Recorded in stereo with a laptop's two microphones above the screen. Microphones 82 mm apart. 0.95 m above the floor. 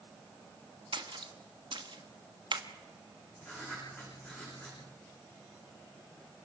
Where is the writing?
20° left (ahead or behind), 8 m.